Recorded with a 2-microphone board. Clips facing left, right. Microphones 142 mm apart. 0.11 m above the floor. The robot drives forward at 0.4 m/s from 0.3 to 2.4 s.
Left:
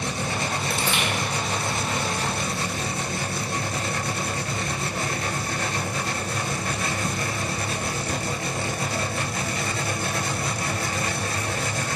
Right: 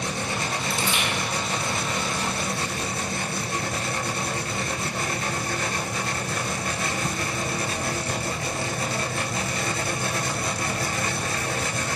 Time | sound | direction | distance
0.7 | crushing | 65° left (ahead or behind) | 1.1 m